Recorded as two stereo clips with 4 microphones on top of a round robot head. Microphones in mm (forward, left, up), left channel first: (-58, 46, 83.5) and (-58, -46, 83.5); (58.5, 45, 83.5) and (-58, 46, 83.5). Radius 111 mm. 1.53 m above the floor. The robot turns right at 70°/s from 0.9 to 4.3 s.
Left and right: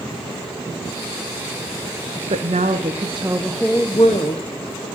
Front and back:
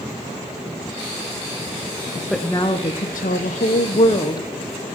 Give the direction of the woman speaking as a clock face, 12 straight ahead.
3 o'clock.